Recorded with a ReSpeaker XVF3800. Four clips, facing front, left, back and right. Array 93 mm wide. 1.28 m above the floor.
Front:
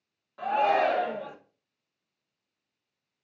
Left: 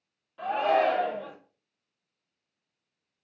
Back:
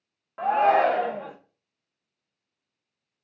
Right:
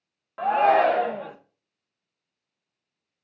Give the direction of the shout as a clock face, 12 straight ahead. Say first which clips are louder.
Right 6 dB, back 4 dB; 4 o'clock.